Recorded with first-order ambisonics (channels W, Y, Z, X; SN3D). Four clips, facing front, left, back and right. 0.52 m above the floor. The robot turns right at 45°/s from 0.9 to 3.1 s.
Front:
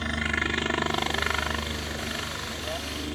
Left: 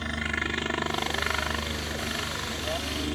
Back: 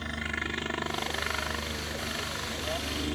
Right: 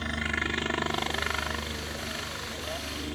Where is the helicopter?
5° left; by 3.1 s 105° left.